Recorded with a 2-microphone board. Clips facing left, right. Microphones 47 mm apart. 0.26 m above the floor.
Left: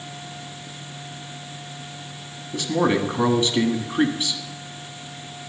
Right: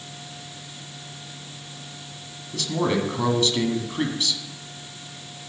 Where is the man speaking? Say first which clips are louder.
Left 3 dB; 20° left (ahead or behind), 1.7 m.